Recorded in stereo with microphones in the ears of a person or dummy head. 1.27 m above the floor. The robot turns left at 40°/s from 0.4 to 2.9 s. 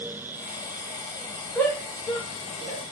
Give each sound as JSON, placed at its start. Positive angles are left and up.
{"t": 1.6, "sound": "a shout", "side_deg": 5, "distance_m": 1.2}